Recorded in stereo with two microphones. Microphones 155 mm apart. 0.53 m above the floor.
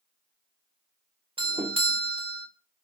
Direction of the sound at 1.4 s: 35° right (ahead or behind).